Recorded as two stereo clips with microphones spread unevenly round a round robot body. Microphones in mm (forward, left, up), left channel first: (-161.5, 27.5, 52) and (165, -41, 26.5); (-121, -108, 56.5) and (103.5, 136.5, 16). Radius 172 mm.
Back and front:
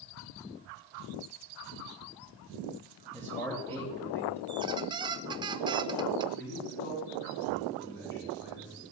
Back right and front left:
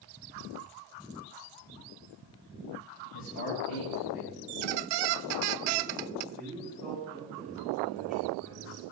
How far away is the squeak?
About 0.5 m.